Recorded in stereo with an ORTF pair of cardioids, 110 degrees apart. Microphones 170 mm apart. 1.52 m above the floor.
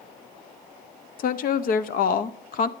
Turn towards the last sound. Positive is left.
turn(degrees=50)